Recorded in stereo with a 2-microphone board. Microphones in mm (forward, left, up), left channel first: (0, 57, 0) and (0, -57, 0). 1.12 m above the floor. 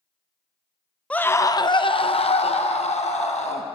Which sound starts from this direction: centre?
A scream, at 1.1 s.